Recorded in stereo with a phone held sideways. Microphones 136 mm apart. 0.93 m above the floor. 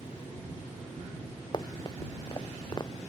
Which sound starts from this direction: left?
Running footsteps, at 1.5 s.